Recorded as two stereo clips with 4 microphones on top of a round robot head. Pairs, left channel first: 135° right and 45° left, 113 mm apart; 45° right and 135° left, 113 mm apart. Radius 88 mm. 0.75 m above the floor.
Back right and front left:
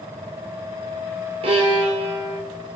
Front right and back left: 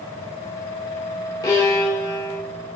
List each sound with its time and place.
1.4 s a violin: 10° left, 2.5 m